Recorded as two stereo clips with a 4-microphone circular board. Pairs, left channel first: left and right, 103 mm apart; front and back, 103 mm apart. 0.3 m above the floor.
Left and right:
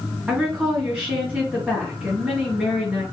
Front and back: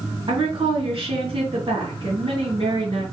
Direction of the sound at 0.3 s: 165° right.